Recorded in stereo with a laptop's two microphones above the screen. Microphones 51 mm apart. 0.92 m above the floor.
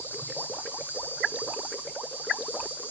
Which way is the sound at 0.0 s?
40° left (ahead or behind).